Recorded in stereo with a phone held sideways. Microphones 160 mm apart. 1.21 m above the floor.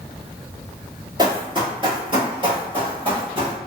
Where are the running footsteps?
30° right (ahead or behind), 1.3 m.